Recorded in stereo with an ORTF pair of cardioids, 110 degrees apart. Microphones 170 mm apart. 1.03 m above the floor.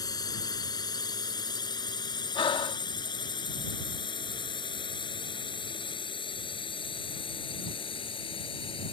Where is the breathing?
30° left.